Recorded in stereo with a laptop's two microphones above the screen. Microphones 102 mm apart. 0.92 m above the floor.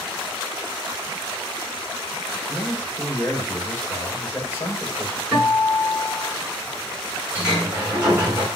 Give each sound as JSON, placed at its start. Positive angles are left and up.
{"t": 2.5, "sound": "a man speaking", "side_deg": 25, "distance_m": 3.5}
{"t": 5.3, "sound": "a guitar", "side_deg": -10, "distance_m": 5.5}
{"t": 7.3, "sound": "a sliding door", "side_deg": -10, "distance_m": 6.0}